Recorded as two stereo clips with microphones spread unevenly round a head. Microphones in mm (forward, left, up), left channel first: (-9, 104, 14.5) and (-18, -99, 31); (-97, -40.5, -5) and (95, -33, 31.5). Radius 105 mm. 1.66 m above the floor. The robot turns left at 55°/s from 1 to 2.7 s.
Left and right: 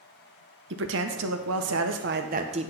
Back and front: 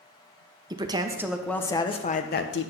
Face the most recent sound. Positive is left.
turn(degrees=-155)